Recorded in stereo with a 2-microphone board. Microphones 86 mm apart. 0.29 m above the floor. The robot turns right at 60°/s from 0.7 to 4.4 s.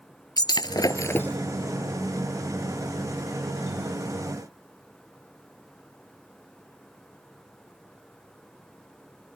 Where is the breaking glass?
125° left; by 1.4 s 165° left.